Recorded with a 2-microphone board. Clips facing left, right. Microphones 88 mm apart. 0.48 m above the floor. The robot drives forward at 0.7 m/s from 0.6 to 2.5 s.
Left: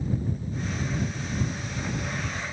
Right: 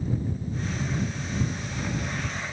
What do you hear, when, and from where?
Only background noise.